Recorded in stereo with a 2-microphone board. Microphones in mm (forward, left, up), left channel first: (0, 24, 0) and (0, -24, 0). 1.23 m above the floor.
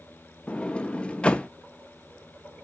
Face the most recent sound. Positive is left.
turn(degrees=20)  # may be behind; listen again after turning